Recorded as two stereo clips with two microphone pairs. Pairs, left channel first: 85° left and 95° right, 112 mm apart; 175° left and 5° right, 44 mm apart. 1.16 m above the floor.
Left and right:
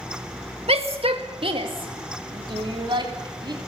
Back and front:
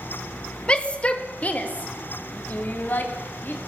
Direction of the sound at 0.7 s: 120° right.